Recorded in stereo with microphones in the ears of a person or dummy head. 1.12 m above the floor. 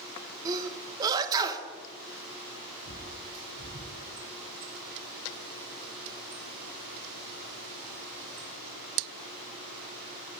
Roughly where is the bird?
Right.